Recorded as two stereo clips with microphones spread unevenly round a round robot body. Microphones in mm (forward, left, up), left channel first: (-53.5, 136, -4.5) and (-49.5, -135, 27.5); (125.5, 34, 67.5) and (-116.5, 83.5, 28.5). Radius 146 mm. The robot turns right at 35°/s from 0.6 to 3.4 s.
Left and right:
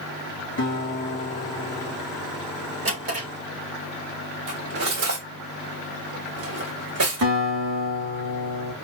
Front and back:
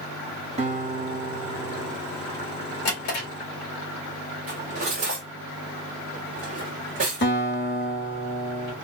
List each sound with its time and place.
0.6 s a guitar: 115° left, 1.2 m; by 2.0 s 165° left, 1.2 m
2.9 s a drawer: 35° right, 2.5 m; by 3.3 s 20° right, 2.5 m
4.5 s cutlery clinking: 125° right, 1.7 m
7.2 s a guitar: 60° right, 1.6 m